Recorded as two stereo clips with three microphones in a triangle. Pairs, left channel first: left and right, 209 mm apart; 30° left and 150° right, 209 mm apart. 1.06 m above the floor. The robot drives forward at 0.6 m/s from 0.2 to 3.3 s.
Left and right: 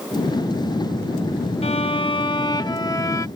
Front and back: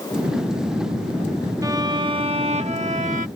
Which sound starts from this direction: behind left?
A violin, at 1.6 s.